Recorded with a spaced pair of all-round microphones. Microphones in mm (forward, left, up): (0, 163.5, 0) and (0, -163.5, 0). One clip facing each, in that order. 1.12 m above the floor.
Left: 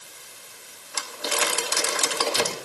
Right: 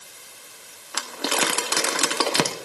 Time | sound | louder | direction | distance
0.9 | crumpling | right 3 dB | 75° right (ahead or behind) | 1.2 m